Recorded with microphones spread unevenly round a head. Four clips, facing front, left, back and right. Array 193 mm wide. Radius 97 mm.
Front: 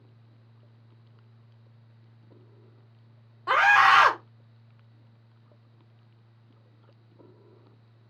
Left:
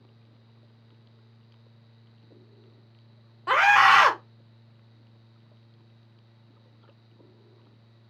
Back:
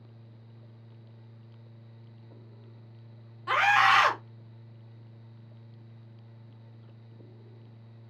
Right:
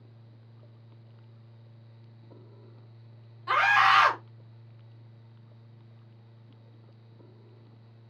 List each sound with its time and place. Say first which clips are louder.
3.5 s a scream: left 4 dB, front 4 dB; 60° left, 1.3 m